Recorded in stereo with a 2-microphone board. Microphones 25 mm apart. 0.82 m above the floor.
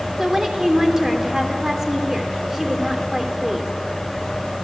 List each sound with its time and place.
0.2 s a woman speaking: 20° right (ahead or behind), 3 m